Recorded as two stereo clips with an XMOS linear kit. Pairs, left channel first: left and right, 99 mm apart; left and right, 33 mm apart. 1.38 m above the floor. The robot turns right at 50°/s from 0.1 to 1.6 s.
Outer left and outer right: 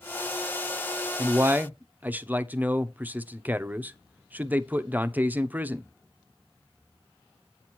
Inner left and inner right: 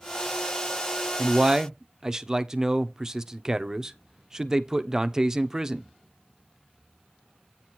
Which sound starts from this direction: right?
A man speaking, at 1.2 s.